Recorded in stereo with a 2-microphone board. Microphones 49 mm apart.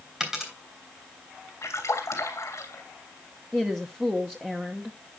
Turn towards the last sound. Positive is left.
turn(degrees=-25)  # may be behind; listen again after turning